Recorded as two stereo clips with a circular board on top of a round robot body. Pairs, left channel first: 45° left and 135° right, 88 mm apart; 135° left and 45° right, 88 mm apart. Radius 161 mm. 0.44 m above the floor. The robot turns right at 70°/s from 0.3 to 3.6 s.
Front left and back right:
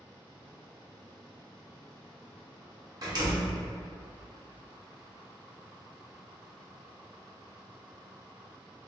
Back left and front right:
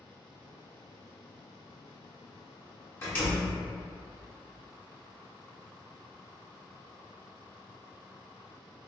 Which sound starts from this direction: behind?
A door slam, at 3.0 s.